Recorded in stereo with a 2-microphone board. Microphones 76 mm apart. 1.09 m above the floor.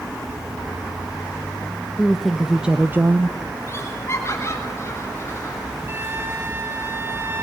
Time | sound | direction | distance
2.0 | a woman speaking | 5° left (ahead or behind) | 1.1 m
3.7 | laughter | 35° left (ahead or behind) | 8 m
5.9 | a flute | 30° right (ahead or behind) | 1.0 m